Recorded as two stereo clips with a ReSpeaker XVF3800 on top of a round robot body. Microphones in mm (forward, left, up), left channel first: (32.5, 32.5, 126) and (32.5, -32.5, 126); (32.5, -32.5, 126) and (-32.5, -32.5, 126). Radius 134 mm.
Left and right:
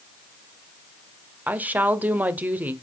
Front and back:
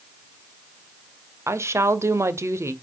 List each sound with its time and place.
1.5 s a woman speaking: 150° right, 1.9 m